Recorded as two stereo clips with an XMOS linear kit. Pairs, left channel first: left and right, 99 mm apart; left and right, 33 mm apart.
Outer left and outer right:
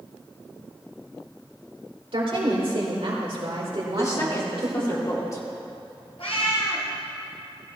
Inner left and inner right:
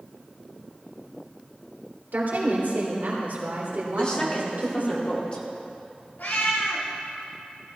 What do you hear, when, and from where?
2.1 s a woman speaking: 75° right (ahead or behind), 3 m
4.0 s a woman speaking: 30° left (ahead or behind), 2.5 m
6.2 s a cat meowing: 75° left (ahead or behind), 2.5 m